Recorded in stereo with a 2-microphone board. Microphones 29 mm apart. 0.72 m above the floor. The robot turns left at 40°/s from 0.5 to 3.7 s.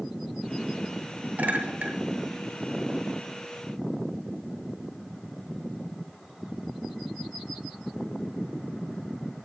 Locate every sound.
1.4 s a clink: 70° right (ahead or behind), 7 m; by 1.9 s 85° right, 7 m